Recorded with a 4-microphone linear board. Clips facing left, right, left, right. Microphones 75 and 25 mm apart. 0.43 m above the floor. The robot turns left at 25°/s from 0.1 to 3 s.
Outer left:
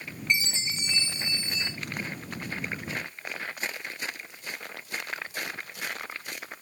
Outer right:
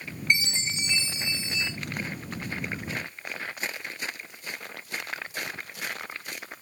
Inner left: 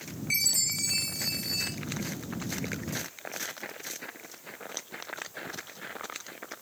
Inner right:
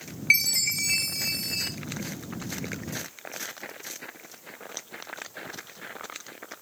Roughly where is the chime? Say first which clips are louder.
Outer right 2 dB, inner right 6 dB; ahead right.